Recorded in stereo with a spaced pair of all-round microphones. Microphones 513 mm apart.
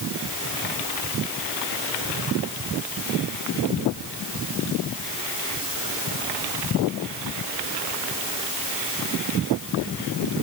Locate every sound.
Only background noise.